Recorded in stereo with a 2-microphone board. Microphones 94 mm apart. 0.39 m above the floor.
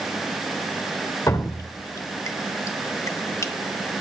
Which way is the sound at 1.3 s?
35° left (ahead or behind).